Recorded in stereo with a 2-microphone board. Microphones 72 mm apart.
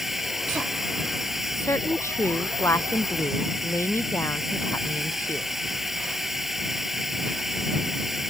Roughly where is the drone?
Centre.